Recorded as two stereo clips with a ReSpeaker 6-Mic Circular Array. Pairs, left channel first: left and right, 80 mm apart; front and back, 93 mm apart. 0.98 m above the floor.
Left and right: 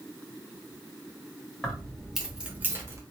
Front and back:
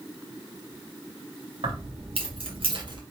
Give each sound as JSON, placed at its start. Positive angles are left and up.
{"t": 1.6, "sound": "keys jangling", "azimuth_deg": 170, "distance_m": 1.4}